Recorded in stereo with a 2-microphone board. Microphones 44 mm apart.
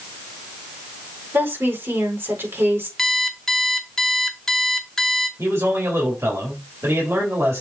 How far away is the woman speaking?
About 4 m.